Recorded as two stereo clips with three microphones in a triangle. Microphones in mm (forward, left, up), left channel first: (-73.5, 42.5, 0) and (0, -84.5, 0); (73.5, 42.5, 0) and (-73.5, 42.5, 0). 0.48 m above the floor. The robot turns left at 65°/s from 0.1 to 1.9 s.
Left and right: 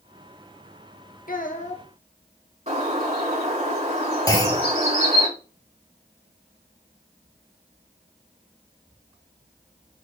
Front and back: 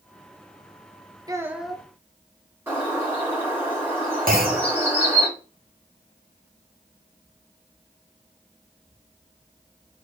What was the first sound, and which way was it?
A child speaking, 115° left.